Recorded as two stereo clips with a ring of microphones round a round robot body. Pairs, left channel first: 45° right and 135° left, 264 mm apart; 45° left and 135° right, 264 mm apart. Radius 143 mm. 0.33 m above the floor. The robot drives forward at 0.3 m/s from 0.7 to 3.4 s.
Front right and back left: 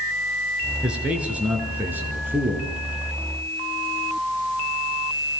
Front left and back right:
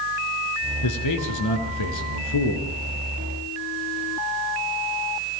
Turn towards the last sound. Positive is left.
turn(degrees=55)